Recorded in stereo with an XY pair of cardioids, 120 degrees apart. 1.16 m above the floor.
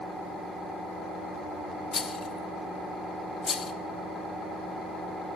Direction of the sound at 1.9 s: 40° left.